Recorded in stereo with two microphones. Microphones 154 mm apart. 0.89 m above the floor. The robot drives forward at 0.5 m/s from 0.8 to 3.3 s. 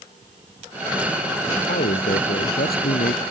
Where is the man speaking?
85° left; by 3.2 s 80° left.